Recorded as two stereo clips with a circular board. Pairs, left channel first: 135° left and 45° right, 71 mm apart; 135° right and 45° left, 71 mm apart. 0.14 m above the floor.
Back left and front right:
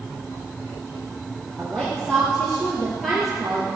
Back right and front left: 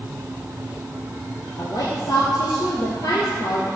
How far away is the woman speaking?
About 3.5 m.